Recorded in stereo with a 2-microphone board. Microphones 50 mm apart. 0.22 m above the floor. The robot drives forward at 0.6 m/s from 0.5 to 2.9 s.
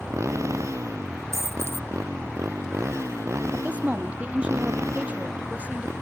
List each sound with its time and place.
0.0 s a motorcycle: 80° right; by 6.0 s 70° right (ahead or behind)
1.3 s a dropped coin: 85° right; by 1.9 s 60° right (ahead or behind)
3.5 s a woman speaking: 25° right (ahead or behind)